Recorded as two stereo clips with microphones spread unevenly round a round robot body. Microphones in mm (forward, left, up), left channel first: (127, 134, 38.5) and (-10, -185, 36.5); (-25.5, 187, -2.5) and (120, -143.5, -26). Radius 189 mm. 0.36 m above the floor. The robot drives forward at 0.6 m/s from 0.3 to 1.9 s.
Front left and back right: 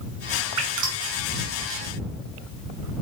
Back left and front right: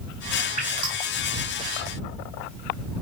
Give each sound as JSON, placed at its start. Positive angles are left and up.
{"t": 0.6, "sound": "dripping", "azimuth_deg": -140, "distance_m": 2.5}